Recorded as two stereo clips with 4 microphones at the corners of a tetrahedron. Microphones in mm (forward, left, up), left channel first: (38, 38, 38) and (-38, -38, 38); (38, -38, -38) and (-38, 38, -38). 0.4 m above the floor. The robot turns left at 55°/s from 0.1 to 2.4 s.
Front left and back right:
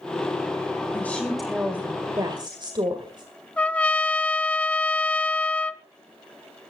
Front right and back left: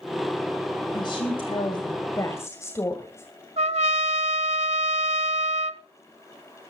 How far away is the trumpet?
About 0.6 m.